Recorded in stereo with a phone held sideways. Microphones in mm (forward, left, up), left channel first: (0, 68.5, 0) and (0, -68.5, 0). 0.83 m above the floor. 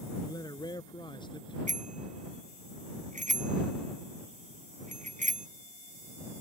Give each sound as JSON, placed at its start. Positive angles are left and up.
{"t": 0.2, "sound": "a man speaking", "side_deg": 30}
{"t": 1.7, "sound": "a bicycle bell", "side_deg": -80}